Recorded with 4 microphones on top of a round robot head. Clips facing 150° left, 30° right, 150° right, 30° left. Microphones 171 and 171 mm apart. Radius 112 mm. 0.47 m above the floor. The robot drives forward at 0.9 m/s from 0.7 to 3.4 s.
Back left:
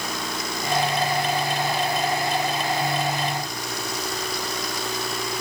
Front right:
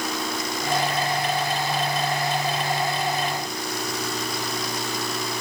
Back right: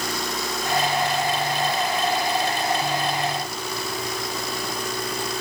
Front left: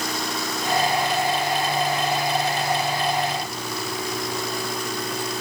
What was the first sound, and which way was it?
Only background noise.